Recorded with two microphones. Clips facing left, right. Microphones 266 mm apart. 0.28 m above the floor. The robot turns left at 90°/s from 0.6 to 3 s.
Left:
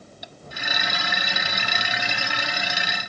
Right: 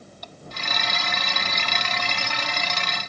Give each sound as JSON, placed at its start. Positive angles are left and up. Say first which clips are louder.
{"t": 0.2, "sound": "tapping", "louder": "right 1 dB", "side_deg": 10}